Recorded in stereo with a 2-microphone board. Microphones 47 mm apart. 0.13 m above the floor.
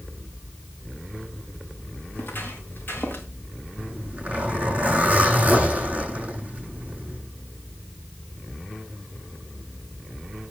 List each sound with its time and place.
2.1 s footsteps: 45° left (ahead or behind), 6 m
3.8 s a zipper: 25° right (ahead or behind), 8 m